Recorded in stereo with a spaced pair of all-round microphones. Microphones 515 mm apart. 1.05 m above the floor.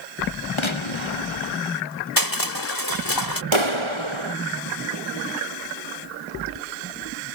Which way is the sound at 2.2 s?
40° left (ahead or behind).